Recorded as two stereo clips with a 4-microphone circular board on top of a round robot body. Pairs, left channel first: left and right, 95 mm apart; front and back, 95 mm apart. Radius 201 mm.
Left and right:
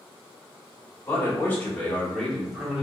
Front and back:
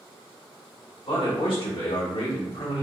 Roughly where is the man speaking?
Ahead left.